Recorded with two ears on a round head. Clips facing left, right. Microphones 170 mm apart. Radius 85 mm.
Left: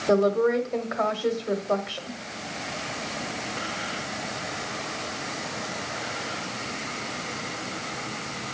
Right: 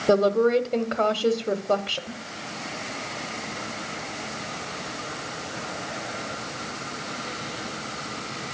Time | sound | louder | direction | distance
0.1 | a woman speaking | right 2 dB | 35° right (ahead or behind) | 1.1 m